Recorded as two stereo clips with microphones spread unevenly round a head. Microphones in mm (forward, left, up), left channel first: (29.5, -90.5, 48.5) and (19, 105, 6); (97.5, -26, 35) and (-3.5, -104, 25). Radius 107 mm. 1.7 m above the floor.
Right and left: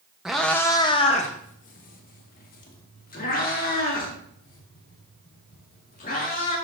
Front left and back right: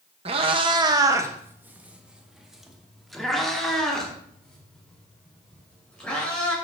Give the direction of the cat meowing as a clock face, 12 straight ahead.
5 o'clock.